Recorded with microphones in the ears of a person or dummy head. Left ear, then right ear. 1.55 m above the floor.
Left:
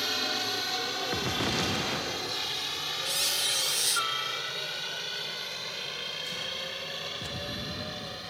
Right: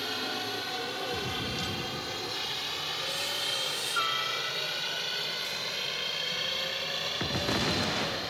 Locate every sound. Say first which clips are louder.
0.0 s a helicopter: left 3 dB; 20° left (ahead or behind); by 8.3 s 15° right (ahead or behind)
3.0 s a squeak: left 5 dB; 25° left (ahead or behind)